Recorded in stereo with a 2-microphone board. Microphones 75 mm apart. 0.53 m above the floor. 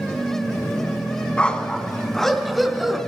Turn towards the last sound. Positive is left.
turn(degrees=-5)  # may be behind; listen again after turning